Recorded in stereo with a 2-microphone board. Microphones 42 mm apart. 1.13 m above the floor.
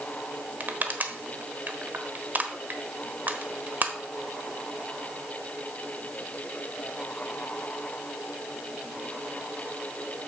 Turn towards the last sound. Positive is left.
turn(degrees=-45)  # may be behind; listen again after turning